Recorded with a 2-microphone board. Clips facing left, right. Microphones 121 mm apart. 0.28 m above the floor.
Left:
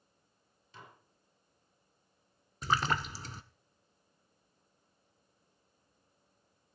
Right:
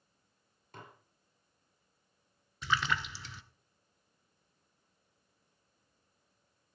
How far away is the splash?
About 0.7 m.